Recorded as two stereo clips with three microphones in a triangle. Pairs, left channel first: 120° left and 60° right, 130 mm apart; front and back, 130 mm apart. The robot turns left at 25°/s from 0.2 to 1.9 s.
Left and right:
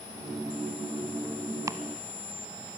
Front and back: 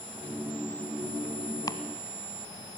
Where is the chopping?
20° right, 0.8 m; by 1.8 s 25° right, 0.8 m.